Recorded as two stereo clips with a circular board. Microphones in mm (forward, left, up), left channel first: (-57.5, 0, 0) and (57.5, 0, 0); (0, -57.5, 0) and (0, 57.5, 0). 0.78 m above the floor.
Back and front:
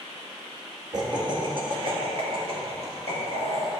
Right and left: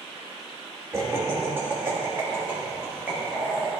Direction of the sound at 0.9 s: 35° left.